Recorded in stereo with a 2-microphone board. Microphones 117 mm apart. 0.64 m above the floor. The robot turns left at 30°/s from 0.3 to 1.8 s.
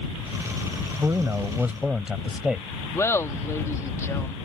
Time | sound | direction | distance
1.0 | a man speaking | 30° right (ahead or behind) | ?
2.9 | laughter | 25° left (ahead or behind) | ?